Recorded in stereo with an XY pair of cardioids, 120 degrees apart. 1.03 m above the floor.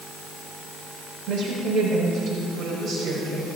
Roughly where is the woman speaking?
Ahead right.